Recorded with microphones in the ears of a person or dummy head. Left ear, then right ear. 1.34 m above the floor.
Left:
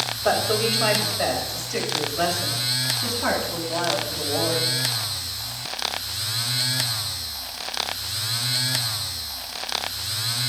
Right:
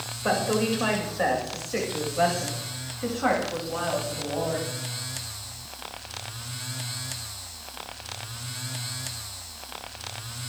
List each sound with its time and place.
0.2 s a woman speaking: 10° right (ahead or behind), 6.5 m